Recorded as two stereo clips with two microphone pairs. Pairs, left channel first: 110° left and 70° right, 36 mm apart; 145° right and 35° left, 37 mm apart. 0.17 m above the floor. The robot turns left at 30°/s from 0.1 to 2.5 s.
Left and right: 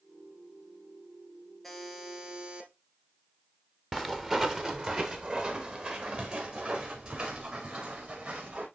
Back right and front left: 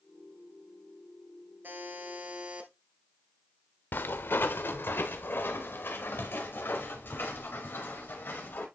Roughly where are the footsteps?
Behind right.